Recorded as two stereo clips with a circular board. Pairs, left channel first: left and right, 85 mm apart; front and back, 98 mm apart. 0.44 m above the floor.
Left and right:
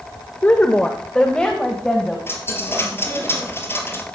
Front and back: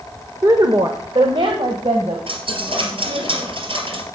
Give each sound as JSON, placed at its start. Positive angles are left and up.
{"t": 0.4, "sound": "a woman speaking", "azimuth_deg": 150, "distance_m": 1.0}
{"t": 2.3, "sound": "a dropped coin", "azimuth_deg": 155, "distance_m": 3.0}